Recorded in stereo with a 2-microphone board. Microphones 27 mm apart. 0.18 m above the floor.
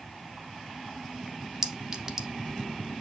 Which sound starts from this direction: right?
A clink, at 1.6 s.